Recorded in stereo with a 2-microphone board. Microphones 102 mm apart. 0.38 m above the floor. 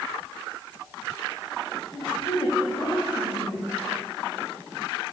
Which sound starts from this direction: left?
A woman speaking, at 1.9 s.